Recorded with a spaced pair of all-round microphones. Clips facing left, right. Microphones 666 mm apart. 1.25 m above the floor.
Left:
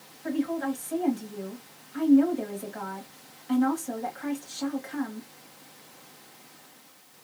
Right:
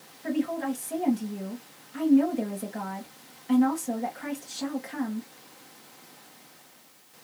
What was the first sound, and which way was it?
A woman speaking, 55° right (ahead or behind).